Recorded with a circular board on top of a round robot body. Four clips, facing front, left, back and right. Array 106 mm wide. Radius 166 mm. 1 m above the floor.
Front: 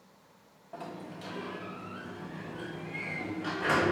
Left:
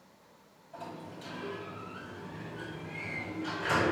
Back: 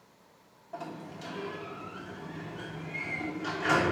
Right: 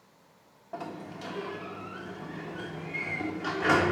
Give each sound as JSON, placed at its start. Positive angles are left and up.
{"t": 0.7, "sound": "a sliding door", "azimuth_deg": -80, "distance_m": 0.9}